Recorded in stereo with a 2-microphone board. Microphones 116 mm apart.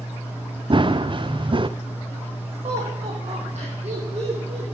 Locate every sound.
0.7 s running footsteps: 45° right (ahead or behind), 0.7 m
2.6 s laughter: 60° right (ahead or behind), 5.5 m